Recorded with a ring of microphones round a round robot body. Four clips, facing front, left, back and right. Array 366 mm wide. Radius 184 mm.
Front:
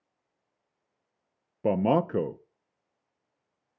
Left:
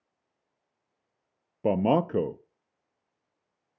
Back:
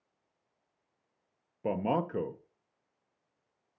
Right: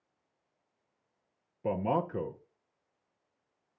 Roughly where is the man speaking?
Ahead left.